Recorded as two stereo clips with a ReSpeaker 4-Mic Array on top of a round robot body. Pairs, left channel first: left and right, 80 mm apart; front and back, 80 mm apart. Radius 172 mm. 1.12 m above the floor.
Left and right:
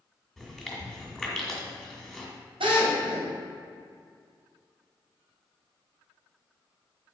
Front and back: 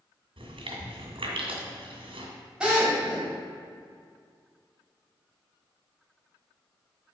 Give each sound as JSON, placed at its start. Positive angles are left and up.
{"t": 0.4, "sound": "chewing", "azimuth_deg": 175, "distance_m": 2.0}
{"t": 2.6, "sound": "a drill", "azimuth_deg": -100, "distance_m": 2.0}